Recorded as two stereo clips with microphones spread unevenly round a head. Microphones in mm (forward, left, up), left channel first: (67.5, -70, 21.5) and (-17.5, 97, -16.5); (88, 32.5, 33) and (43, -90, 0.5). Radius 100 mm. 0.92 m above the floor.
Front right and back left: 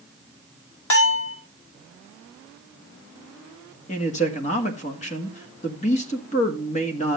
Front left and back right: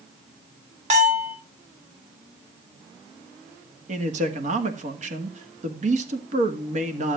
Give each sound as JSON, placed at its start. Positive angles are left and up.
{"t": 0.9, "sound": "a bell", "azimuth_deg": -90, "distance_m": 3.5}
{"t": 3.9, "sound": "a man speaking", "azimuth_deg": -125, "distance_m": 1.7}